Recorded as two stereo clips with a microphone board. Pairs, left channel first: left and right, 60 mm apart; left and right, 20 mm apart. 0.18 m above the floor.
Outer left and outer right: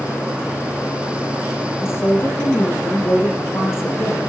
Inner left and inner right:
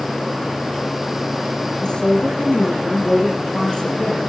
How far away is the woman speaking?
About 8 m.